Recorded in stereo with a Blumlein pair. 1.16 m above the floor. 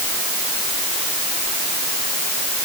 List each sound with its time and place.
Only background noise.